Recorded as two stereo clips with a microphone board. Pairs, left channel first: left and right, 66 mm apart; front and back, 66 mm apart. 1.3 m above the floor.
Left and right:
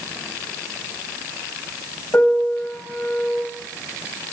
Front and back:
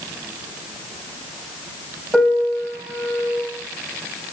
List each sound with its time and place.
2.1 s a piano: 100° left, 1.4 m